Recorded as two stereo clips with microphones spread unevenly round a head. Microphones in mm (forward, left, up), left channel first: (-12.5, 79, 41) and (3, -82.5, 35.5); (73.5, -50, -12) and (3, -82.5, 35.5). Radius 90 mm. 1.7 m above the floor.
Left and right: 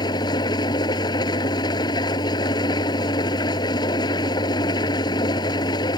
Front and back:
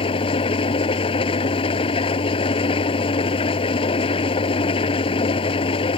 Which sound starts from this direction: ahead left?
An engine running, at 0.0 s.